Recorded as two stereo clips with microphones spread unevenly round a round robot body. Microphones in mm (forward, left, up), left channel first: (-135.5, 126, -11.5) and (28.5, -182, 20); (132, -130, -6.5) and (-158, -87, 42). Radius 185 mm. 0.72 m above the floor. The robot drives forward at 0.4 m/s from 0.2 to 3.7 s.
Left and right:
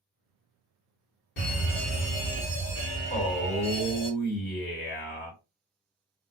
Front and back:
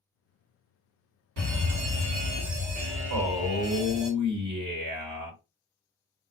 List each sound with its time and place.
1.4 s a fire alarm: 155° left, 2.0 m; by 4.1 s 165° left, 2.5 m
3.1 s a man speaking: 170° left, 2.5 m; by 5.4 s 175° left, 2.5 m